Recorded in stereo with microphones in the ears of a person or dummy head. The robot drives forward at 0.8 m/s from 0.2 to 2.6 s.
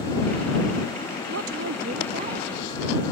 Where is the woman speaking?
70° right (ahead or behind); by 2.7 s 35° right (ahead or behind).